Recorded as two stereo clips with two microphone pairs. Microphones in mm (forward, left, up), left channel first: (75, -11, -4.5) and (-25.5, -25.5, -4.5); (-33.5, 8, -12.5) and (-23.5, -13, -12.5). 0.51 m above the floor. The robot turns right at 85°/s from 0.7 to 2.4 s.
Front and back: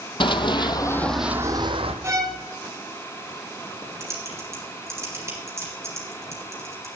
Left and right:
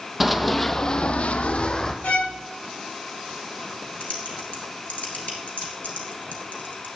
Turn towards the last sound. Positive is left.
turn(degrees=125)